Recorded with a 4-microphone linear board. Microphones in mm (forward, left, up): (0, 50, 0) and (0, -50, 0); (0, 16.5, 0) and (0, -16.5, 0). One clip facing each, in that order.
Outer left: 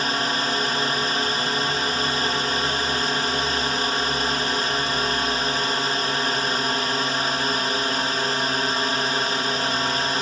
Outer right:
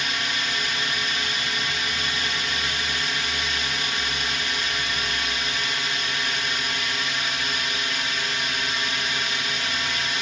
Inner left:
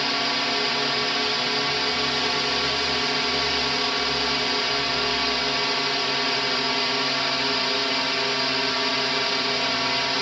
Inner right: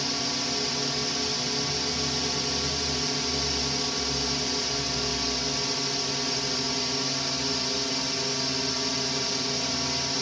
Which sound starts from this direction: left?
A drone, at 0.0 s.